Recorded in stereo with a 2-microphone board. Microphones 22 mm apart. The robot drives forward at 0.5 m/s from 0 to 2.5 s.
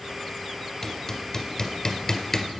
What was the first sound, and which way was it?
Hammering, 15° left (ahead or behind).